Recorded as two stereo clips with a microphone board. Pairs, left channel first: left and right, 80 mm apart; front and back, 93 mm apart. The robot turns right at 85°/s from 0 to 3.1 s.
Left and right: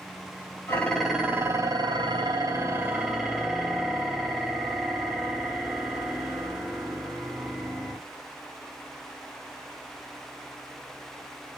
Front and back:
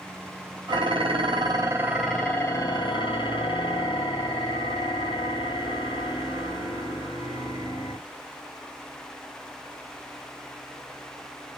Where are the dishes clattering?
150° left, 1.7 m; by 8.0 s 5° right, 1.7 m.